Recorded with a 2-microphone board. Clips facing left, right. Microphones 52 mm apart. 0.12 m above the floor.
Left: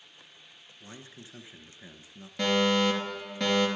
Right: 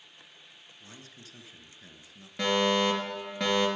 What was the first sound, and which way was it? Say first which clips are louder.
A man speaking: left 4 dB; 25° left (ahead or behind).